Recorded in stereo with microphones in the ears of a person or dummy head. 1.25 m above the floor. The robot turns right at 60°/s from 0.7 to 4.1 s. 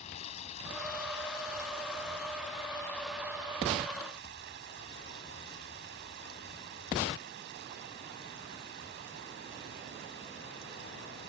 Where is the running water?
35° left; by 11.3 s 120° right.